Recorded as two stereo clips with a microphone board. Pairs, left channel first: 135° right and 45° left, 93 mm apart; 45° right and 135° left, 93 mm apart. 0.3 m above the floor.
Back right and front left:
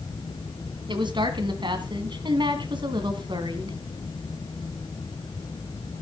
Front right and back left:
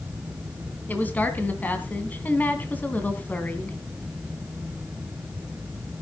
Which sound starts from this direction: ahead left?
A woman speaking, at 0.9 s.